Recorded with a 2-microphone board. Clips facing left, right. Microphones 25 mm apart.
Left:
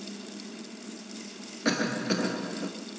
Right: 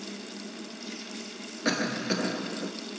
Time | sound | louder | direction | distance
1.6 | a cough | left 1 dB | 5° right (ahead or behind) | 2 m